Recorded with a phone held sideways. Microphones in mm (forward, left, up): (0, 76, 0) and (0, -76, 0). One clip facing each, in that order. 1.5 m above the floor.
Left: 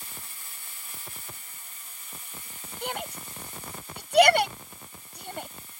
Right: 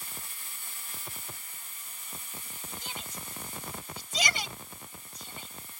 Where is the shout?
65° left (ahead or behind).